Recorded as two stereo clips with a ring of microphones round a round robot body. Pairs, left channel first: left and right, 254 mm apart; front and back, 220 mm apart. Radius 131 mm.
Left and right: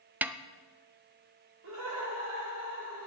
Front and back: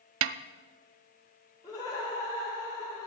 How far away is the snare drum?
About 0.5 m.